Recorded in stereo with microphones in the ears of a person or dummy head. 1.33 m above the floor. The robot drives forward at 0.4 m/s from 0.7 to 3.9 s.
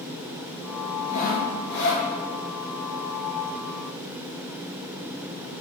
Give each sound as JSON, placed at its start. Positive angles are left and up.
{"t": 1.1, "sound": "sawing", "side_deg": 45, "distance_m": 0.8}